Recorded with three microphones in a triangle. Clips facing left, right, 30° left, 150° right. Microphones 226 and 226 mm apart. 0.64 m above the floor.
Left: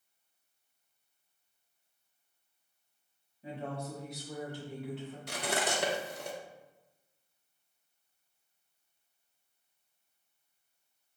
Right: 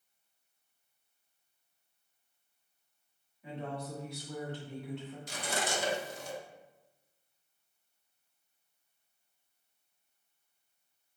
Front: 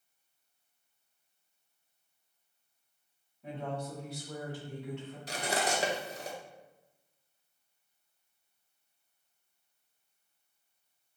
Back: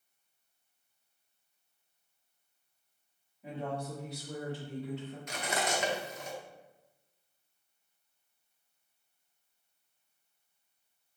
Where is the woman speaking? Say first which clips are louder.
Left 1 dB, back 1 dB; 125° left, 1.4 m; by 5.2 s 175° right, 1.5 m.